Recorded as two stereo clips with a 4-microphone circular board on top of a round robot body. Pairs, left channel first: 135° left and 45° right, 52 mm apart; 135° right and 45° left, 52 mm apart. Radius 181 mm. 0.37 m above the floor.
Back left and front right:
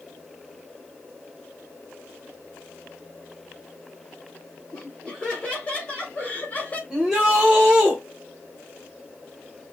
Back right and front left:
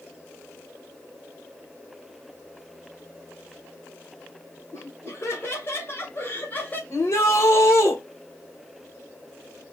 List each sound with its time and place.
4.7 s laughter: 155° right, 3 m; by 6.8 s straight behind, 1.9 m
6.9 s a shout: 130° right, 2 m